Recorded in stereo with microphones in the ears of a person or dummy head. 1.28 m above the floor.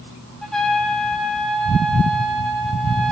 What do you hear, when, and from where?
0.4 s a trumpet: 5° left (ahead or behind), 2.5 m